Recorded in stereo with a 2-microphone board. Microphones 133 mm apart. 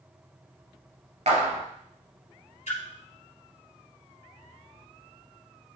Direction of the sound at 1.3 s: 60° right (ahead or behind).